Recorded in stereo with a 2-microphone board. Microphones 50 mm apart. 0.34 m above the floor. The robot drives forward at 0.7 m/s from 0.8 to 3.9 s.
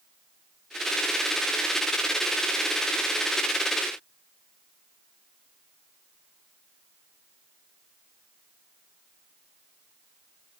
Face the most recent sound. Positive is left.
No sound to turn to.